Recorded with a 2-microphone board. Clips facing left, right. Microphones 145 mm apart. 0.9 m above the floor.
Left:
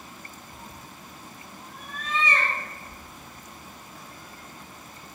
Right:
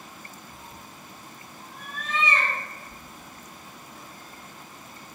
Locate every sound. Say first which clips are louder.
0.5 s a cat meowing: left 1 dB; 5° right (ahead or behind), 1.1 m
2.9 s a sliding door: even; 55° left (ahead or behind), 0.6 m